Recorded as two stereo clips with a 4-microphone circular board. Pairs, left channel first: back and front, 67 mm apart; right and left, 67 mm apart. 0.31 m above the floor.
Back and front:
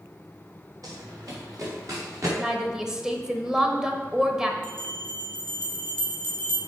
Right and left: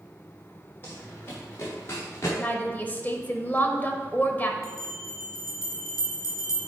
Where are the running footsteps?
30° right, 3 m; by 2.3 s 40° right, 4 m.